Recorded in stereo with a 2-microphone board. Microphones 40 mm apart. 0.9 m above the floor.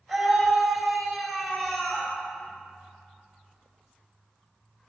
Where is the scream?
10° right (ahead or behind), 3.5 m; by 2.1 s 35° left (ahead or behind), 3.5 m.